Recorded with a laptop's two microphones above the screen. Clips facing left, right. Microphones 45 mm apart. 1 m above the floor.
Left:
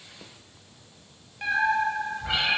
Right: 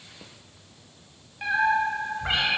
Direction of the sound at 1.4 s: 5° right (ahead or behind).